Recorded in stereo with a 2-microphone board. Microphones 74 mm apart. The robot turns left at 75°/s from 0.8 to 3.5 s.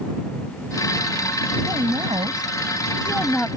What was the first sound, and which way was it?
A woman speaking, 50° right.